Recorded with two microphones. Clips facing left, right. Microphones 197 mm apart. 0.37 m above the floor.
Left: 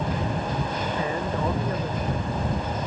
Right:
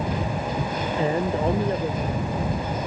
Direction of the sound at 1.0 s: 30° right (ahead or behind).